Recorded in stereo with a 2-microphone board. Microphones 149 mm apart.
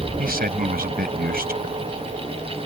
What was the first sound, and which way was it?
A man speaking, 90° right.